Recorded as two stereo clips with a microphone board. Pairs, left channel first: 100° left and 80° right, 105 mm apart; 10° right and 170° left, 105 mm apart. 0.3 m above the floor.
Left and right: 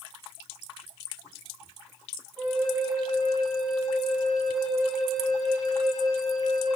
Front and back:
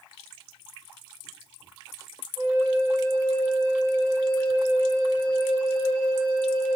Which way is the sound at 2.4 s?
165° right.